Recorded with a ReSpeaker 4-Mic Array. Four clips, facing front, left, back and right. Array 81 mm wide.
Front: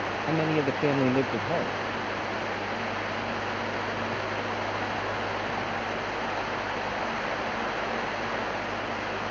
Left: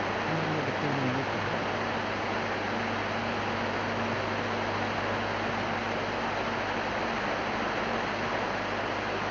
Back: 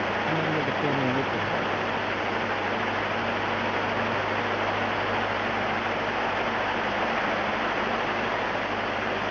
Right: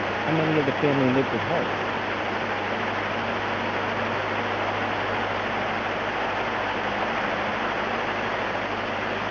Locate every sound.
0.3 s a man speaking: 75° right